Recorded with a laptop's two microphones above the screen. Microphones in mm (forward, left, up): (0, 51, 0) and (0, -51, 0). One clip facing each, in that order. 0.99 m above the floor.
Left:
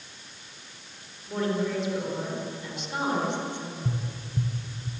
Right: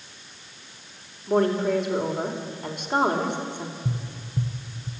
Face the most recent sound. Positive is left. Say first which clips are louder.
# right 1 dB
turn(degrees=-10)  # may be behind; listen again after turning